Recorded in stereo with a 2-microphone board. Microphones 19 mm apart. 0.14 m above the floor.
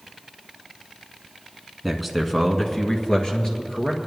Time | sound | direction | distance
1.8 | a man speaking | 5° right (ahead or behind) | 1.1 m